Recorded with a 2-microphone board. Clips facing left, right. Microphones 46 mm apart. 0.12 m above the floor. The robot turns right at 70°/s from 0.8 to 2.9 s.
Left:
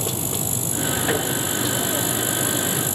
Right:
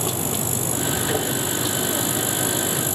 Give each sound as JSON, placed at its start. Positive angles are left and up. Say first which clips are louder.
{"t": 1.1, "sound": "tapping", "louder": "left 2 dB", "side_deg": 20, "distance_m": 8.0}